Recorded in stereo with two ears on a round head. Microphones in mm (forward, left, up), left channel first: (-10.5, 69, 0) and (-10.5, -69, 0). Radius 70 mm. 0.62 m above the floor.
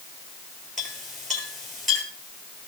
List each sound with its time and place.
0.8 s a clink: centre (ahead or behind), 9 m